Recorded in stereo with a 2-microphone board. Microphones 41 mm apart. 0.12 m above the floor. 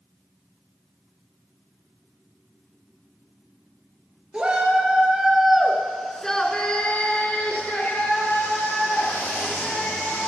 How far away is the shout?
About 1.7 m.